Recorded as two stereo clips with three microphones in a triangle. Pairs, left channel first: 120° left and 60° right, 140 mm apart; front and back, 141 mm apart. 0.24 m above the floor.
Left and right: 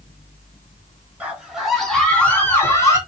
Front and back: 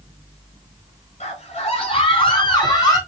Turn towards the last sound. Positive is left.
turn(degrees=60)